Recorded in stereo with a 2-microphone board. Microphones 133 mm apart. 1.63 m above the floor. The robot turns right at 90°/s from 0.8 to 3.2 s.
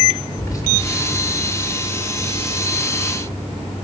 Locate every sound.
0.4 s whispering: 25° left (ahead or behind), 5 m